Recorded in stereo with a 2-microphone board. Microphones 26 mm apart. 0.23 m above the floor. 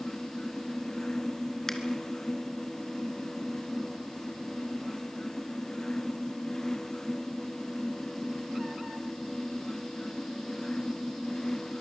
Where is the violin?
No violin in this recording.